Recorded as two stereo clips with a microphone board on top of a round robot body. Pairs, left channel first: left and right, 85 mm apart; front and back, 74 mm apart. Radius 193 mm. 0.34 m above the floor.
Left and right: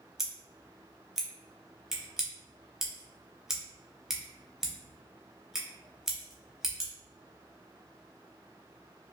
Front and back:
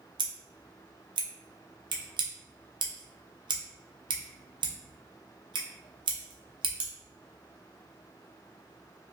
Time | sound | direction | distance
0.2 | scissors | 175° right | 0.6 m